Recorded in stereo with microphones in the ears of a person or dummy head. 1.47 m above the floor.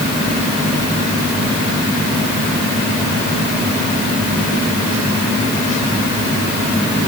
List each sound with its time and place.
Only background noise.